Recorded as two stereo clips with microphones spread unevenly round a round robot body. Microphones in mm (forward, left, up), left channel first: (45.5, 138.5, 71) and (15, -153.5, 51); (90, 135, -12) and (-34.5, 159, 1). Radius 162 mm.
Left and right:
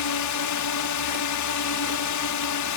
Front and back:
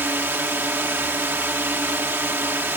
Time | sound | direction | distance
0.0 | a drone | 95° left | ?